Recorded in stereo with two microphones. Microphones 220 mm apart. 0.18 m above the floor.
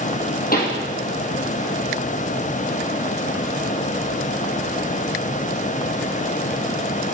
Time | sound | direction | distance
0.5 | a pop | 45° left (ahead or behind) | 3.5 m